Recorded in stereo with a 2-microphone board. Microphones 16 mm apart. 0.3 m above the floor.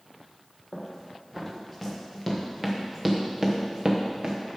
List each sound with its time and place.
0.7 s running footsteps: 15° left (ahead or behind), 2.5 m; by 4.4 s 45° right (ahead or behind), 1.6 m